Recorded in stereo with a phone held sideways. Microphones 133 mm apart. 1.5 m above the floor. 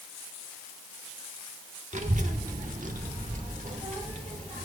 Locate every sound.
1.9 s a child speaking: 60° right (ahead or behind), 1.2 m; by 4.7 s 70° right (ahead or behind), 2.5 m